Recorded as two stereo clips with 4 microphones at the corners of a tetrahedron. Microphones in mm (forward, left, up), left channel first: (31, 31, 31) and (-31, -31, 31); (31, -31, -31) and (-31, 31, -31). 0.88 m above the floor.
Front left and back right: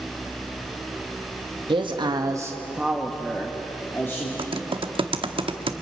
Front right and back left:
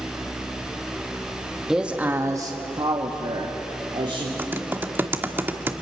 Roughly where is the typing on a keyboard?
Behind right.